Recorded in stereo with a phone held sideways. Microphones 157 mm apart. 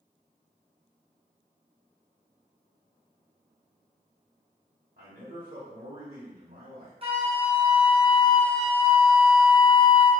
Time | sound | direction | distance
5.0 | a man speaking | 65° right (ahead or behind) | 0.9 m
7.0 | a flute | 35° right (ahead or behind) | 0.6 m